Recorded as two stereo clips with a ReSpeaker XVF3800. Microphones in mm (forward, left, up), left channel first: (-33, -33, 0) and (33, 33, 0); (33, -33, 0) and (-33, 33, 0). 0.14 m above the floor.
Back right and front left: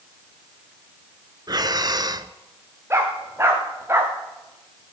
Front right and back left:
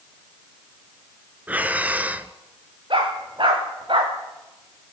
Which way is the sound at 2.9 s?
105° left.